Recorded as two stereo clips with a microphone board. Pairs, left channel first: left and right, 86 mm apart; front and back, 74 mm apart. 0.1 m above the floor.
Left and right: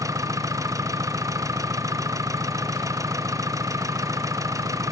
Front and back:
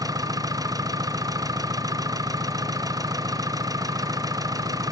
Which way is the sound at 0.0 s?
140° right.